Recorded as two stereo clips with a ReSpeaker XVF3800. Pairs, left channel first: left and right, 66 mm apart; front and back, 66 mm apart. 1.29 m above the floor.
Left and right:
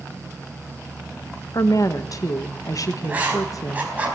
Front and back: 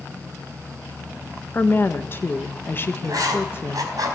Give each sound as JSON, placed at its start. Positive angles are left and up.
{"t": 1.5, "sound": "a woman speaking", "azimuth_deg": 55, "distance_m": 1.2}
{"t": 3.0, "sound": "writing", "azimuth_deg": -155, "distance_m": 3.5}